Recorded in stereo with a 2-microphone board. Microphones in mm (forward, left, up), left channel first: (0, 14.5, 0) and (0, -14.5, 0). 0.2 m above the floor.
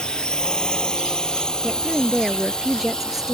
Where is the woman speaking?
10° right (ahead or behind).